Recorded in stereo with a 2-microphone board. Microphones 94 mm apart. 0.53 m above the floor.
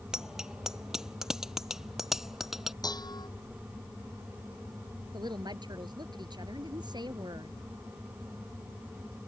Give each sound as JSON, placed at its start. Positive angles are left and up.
{"t": 0.1, "sound": "a bicycle bell", "side_deg": -5}
{"t": 2.8, "sound": "dishes clattering", "side_deg": 45}
{"t": 5.1, "sound": "a woman speaking", "side_deg": -50}